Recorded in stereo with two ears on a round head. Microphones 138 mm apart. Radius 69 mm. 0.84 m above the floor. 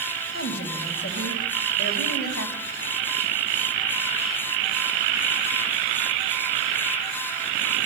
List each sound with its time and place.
0.3 s a woman speaking: 85° left, 5 m